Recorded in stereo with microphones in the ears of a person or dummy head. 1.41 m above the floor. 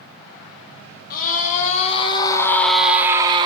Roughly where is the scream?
Left.